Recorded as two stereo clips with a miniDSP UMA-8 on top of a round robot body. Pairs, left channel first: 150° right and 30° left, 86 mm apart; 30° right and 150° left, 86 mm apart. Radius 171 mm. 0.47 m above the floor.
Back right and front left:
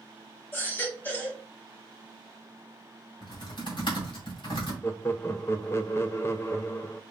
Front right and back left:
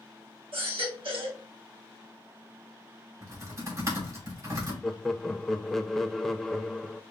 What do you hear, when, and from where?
0.5 s a baby crying: 145° left, 1.4 m
3.2 s typing on a keyboard: 160° right, 3 m
4.8 s laughter: 115° right, 0.8 m